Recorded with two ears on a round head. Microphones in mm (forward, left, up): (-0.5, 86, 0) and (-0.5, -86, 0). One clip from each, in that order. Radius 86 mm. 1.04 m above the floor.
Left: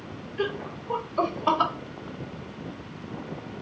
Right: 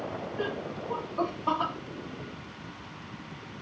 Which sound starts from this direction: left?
Laughter, at 0.4 s.